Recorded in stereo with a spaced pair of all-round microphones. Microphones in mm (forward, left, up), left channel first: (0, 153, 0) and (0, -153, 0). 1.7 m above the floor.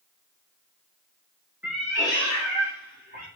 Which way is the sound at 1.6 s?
5° right (ahead or behind).